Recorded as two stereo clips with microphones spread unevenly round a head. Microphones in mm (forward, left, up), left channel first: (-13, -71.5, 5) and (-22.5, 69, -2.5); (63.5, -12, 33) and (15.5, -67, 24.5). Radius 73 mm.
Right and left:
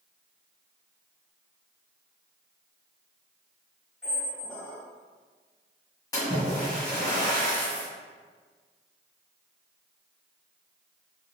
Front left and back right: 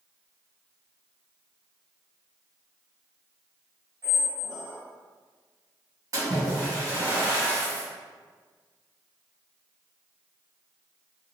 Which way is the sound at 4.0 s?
160° right.